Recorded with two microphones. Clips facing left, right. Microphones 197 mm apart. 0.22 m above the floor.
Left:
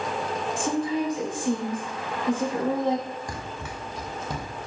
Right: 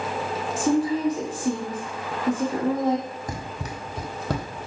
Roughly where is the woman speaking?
Right.